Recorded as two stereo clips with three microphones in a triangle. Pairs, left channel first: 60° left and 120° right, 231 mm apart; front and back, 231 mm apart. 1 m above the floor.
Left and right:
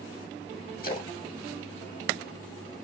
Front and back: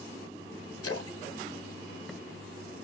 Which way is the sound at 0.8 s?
10° left.